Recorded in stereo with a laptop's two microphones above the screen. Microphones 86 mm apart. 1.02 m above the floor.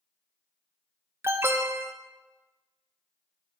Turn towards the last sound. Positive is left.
turn(degrees=-30)  # may be behind; listen again after turning